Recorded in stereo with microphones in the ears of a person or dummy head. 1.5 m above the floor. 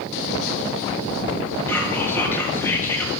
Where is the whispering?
15° left (ahead or behind), 1.4 m.